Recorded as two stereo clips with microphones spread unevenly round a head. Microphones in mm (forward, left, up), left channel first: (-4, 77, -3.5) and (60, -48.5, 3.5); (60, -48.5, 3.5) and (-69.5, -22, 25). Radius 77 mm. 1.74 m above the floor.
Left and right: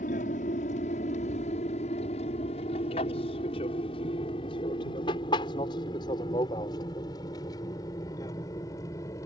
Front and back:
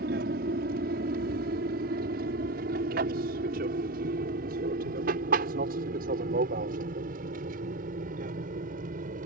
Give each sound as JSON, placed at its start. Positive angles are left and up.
{"t": 0.0, "sound": "an aircraft", "azimuth_deg": 160}